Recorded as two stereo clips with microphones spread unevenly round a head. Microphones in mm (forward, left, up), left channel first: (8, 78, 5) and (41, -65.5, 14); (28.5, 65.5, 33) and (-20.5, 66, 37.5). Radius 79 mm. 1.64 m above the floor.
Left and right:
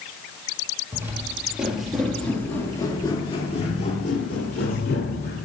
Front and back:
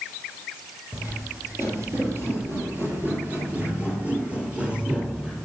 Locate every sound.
0.9 s footsteps: 140° right, 2.5 m; by 5.5 s 115° left, 3 m